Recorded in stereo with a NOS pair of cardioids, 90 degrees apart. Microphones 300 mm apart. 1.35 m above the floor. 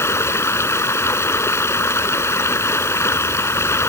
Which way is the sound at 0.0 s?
10° left.